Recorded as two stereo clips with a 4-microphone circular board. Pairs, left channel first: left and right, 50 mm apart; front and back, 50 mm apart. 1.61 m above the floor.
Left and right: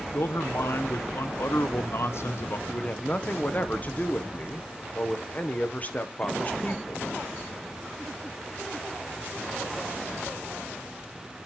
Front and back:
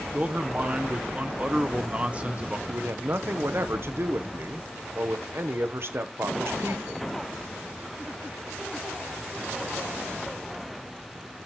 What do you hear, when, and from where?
0.1 s a man speaking: 120° left, 1.0 m
2.7 s a man speaking: 145° left, 1.1 m